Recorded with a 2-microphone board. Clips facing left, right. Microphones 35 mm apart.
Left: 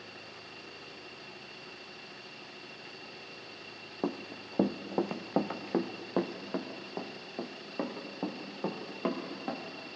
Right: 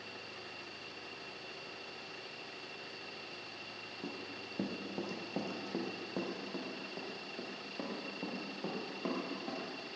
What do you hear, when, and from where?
4.0 s running footsteps: 60° left (ahead or behind), 0.9 m; by 9.9 s 25° left (ahead or behind), 3.5 m